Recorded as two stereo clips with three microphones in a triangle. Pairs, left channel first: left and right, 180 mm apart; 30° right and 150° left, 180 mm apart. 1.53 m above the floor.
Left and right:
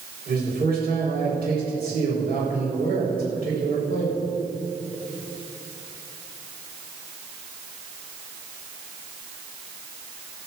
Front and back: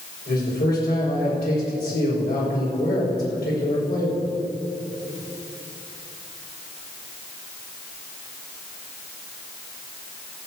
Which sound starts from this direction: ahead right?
A man speaking, at 0.3 s.